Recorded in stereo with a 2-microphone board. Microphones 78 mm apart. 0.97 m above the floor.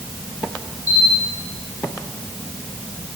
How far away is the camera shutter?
About 4 m.